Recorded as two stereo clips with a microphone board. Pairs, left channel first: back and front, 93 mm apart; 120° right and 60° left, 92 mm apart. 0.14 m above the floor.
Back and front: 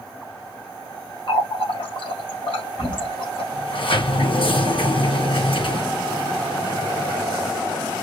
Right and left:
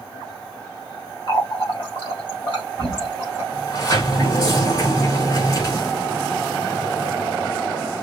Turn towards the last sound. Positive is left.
turn(degrees=-160)